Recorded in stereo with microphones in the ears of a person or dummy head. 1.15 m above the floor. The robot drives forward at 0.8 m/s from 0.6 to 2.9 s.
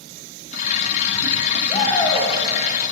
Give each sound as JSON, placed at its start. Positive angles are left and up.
{"t": 1.7, "sound": "a shout", "side_deg": 25, "distance_m": 1.5}